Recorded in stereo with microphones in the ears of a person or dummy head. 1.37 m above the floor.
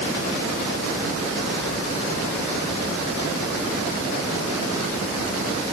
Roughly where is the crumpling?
I don't hear crumpling.